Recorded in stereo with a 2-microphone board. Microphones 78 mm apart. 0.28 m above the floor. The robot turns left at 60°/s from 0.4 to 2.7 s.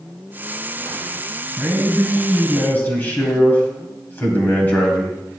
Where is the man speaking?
145° right, 1.3 m; by 5.2 s 145° left, 1.3 m.